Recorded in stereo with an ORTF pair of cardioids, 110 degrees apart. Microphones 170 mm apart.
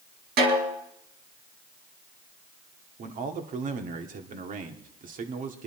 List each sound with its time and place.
0.4 s a snare drum: 70° right, 4 m
3.0 s a man speaking: 50° right, 2 m